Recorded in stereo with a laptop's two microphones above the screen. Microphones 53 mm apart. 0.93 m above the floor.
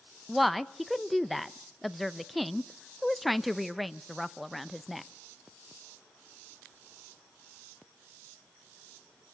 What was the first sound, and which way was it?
A woman speaking, 5° left (ahead or behind).